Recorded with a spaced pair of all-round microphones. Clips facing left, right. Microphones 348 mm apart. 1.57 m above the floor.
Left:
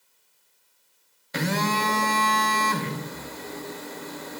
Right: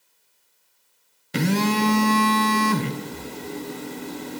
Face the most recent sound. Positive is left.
turn(degrees=-40)  # may be behind; listen again after turning